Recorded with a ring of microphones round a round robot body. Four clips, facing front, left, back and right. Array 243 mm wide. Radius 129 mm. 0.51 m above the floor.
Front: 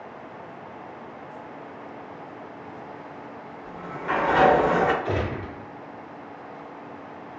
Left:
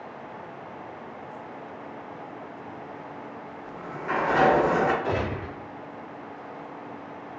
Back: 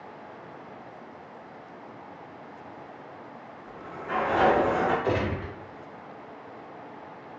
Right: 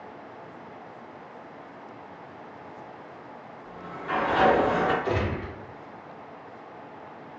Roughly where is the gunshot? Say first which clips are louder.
Even, even; behind.